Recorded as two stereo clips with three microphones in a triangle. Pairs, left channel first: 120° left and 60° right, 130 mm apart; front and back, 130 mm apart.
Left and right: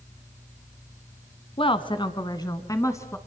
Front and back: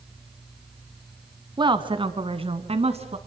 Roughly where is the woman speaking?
Behind left.